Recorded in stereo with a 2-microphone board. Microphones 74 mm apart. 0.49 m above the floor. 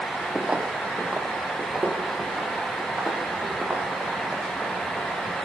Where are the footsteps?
10° right (ahead or behind), 1.0 m; by 5.4 s 15° right (ahead or behind), 8.5 m.